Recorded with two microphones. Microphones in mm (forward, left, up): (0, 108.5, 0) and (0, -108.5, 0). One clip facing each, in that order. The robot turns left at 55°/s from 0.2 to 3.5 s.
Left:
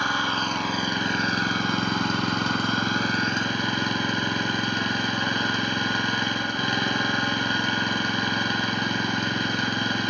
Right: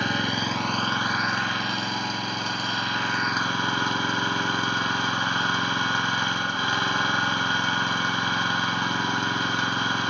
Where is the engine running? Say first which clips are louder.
Right 2 dB; 155° right, 1.1 m; by 10.1 s 20° left, 1.1 m.